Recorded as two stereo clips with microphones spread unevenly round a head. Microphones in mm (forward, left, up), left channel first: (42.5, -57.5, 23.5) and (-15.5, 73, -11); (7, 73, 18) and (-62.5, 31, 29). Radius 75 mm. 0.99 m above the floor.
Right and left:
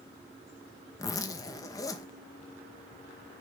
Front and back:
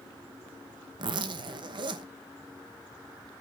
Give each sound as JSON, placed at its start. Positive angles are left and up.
{"t": 1.0, "sound": "a zipper", "azimuth_deg": -140, "distance_m": 0.9}